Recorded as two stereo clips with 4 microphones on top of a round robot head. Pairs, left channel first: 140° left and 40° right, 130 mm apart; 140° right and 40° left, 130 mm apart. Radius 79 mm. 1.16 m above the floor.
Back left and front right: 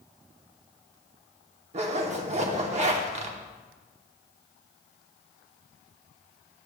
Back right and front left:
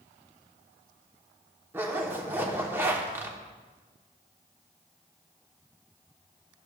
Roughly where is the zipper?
Ahead right.